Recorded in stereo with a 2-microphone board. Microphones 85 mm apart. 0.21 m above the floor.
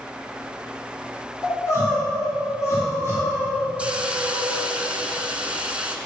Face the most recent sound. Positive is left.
turn(degrees=-15)  # may be behind; listen again after turning